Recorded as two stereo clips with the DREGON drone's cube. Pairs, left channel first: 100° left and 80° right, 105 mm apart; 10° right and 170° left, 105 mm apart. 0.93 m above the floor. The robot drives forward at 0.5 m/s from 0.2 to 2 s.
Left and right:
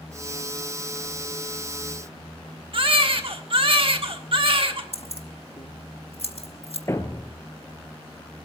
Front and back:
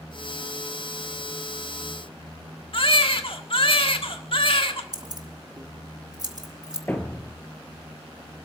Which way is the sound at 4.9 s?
120° left.